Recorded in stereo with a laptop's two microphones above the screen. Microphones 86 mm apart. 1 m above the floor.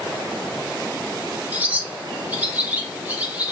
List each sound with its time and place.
1.5 s a bird: 20° right (ahead or behind), 0.5 m